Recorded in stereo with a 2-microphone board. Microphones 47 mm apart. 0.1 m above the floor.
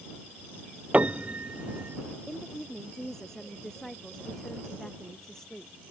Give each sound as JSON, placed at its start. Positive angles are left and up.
{"t": 0.9, "sound": "a piano", "side_deg": -30}
{"t": 2.3, "sound": "a woman speaking", "side_deg": 10}